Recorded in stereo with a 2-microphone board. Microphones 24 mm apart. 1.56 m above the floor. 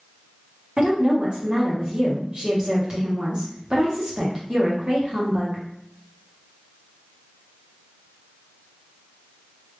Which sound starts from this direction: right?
A woman speaking, at 0.8 s.